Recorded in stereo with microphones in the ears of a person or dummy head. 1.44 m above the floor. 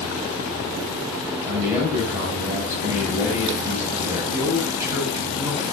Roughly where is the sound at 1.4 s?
Centre.